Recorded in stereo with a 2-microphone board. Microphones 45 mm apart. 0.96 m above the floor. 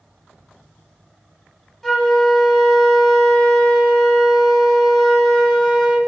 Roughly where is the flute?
Centre.